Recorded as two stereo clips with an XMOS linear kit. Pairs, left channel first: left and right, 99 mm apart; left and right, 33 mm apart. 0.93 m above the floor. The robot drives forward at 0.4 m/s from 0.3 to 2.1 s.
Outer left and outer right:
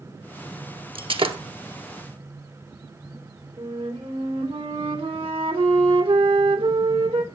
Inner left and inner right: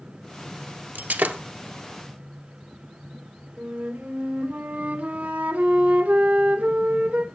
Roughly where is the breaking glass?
Right.